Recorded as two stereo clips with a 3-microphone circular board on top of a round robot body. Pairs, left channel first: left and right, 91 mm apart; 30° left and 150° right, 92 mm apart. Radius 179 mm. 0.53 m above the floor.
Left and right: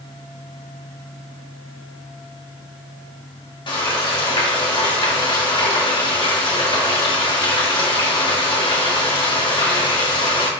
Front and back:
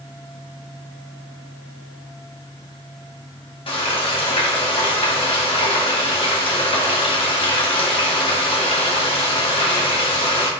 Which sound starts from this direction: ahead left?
Frying, at 3.7 s.